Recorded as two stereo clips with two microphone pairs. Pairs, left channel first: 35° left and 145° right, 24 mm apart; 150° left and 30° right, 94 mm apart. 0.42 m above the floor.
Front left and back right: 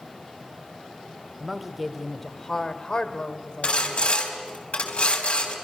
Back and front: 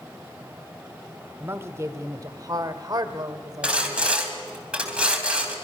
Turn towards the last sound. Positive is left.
turn(degrees=50)